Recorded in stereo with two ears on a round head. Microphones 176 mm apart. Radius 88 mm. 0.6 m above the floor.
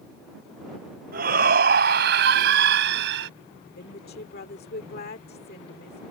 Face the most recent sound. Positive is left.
turn(degrees=55)  # may be behind; listen again after turning